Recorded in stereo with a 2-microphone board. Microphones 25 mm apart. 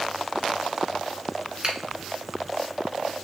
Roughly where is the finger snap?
Right.